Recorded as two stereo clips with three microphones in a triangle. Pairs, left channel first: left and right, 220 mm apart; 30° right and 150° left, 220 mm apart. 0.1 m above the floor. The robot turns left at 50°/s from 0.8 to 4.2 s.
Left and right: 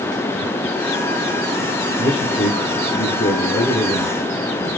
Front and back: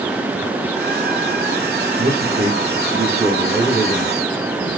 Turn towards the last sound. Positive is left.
turn(degrees=25)